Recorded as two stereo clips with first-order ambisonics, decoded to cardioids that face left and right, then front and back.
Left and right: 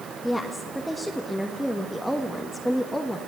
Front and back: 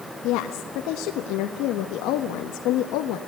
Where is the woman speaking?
Straight ahead, 1.3 m.